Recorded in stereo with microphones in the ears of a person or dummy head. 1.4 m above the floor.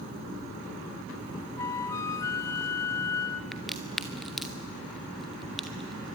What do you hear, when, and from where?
1.6 s a flute: 15° left (ahead or behind), 0.7 m
3.5 s a crack: centre (ahead or behind), 0.6 m